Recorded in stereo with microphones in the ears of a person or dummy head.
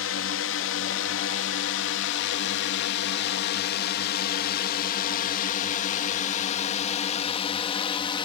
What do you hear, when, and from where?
0.0 s a drone: 60° left (ahead or behind); by 8.2 s 30° left (ahead or behind)